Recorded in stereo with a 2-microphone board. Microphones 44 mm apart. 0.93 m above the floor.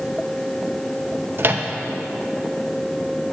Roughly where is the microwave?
Right.